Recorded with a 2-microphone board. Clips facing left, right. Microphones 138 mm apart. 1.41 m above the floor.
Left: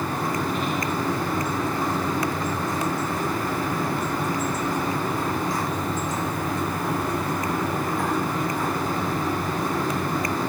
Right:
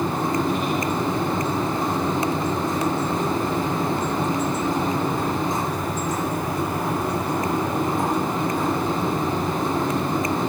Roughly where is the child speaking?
I don't hear a child speaking.